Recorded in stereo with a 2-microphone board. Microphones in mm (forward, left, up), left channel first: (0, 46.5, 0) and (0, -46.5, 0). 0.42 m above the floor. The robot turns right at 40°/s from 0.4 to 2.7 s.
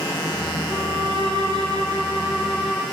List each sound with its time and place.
0.7 s a violin: 105° right, 10 m; by 2.8 s 25° right, 10 m